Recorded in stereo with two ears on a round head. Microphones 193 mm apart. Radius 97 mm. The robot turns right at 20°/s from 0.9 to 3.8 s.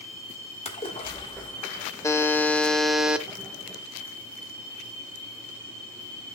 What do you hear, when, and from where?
0.7 s a splash: 30° left (ahead or behind), 1.5 m; by 1.9 s 15° left (ahead or behind), 1.5 m
2.0 s a buzzer: 15° left (ahead or behind), 0.7 m; by 3.3 s 5° right (ahead or behind), 0.7 m